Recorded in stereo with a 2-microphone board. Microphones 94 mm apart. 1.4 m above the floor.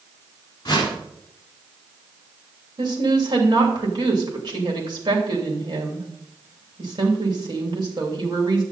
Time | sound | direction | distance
0.7 | a whoosh | 45° left (ahead or behind) | 3.5 m
2.8 | a woman speaking | 50° right (ahead or behind) | 3 m